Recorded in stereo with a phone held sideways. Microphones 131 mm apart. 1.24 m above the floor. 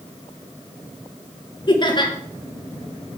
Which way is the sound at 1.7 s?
35° left (ahead or behind).